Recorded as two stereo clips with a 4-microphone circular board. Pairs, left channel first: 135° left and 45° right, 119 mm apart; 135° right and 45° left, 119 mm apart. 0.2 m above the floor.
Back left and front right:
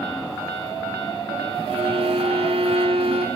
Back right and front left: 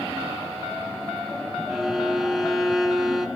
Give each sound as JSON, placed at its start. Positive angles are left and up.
{"t": 1.7, "sound": "a violin", "azimuth_deg": -40, "distance_m": 0.7}